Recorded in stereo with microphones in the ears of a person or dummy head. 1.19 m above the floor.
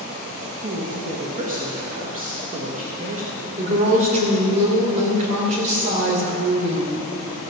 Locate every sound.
0.6 s a woman speaking: 40° right (ahead or behind), 1.5 m
3.6 s a woman speaking: 40° right (ahead or behind), 3.5 m